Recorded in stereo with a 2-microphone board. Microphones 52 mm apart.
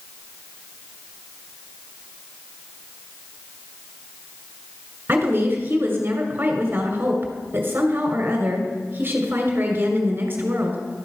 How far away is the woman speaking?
About 2 m.